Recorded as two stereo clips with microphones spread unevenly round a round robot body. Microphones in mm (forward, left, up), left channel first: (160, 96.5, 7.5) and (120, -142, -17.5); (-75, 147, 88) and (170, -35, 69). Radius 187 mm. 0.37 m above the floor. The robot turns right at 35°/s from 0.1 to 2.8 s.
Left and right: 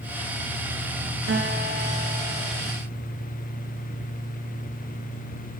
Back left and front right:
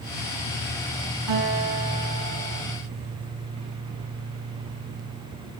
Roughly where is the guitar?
Ahead right.